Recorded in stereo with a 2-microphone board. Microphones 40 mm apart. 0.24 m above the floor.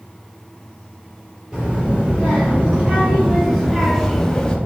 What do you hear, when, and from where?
1.5 s a child speaking: 20° right (ahead or behind), 1.6 m; by 4.6 s 20° left (ahead or behind), 0.6 m